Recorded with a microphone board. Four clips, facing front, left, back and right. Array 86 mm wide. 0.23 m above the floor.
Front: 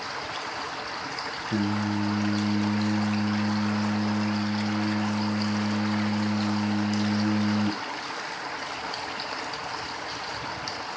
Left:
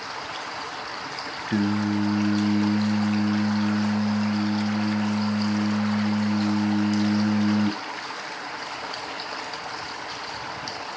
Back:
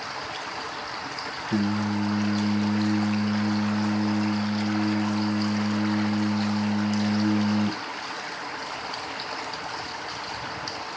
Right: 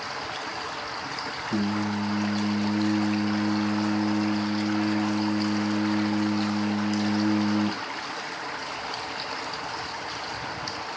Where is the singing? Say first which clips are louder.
Left 4 dB, back 2 dB; 95° left, 0.9 m.